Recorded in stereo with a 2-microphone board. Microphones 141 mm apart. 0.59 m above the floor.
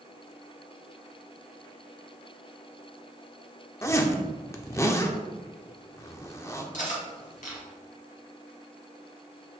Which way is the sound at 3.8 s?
20° left (ahead or behind).